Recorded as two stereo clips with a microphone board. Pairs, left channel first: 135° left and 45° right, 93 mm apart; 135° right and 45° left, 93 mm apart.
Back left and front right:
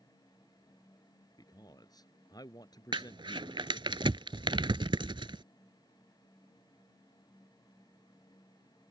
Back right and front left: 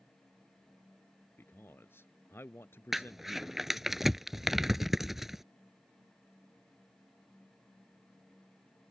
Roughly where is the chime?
No chime in this recording.